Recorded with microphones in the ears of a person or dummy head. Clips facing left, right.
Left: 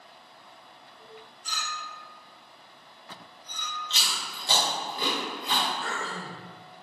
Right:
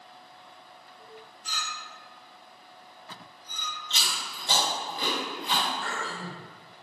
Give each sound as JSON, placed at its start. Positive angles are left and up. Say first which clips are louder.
{"t": 1.4, "sound": "a clink", "louder": "left 2 dB", "side_deg": 50, "distance_m": 0.8}
{"t": 3.9, "sound": "chewing", "louder": "even", "side_deg": -20, "distance_m": 1.8}
{"t": 5.8, "sound": "throat clearing", "louder": "even", "side_deg": 25, "distance_m": 1.3}